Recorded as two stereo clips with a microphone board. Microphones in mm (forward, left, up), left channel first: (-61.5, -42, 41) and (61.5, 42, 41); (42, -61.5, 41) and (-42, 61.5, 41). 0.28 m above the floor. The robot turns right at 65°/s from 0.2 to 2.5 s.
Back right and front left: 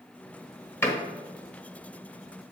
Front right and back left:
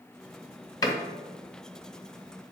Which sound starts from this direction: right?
A door slam, at 0.8 s.